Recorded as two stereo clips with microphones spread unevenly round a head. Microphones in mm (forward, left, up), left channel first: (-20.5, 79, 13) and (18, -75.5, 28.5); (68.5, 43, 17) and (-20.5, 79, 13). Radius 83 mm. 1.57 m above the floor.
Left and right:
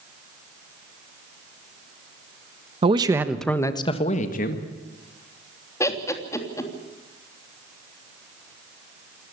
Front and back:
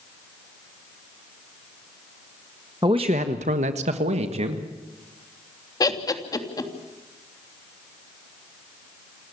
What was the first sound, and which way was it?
A man speaking, 130° right.